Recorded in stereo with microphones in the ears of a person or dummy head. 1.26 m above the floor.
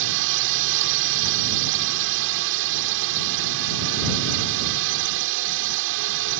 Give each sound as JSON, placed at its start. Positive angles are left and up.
{"t": 0.0, "sound": "a drone", "side_deg": -70}